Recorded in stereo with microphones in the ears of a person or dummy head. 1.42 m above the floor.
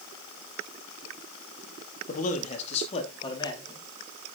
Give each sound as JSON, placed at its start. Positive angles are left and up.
{"t": 2.1, "sound": "a man speaking", "side_deg": 55, "distance_m": 2.5}